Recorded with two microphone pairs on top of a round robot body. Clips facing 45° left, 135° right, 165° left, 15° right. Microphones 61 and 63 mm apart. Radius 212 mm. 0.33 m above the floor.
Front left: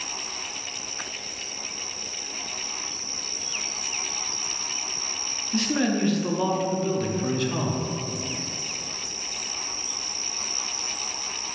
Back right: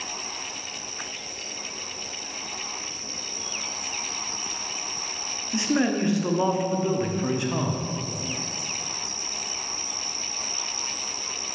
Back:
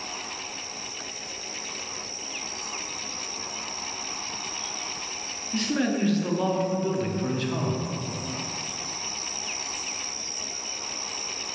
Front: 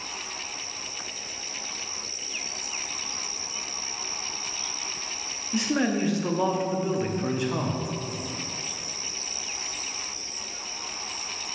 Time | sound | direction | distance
5.5 | a man speaking | 95° right | 1.3 m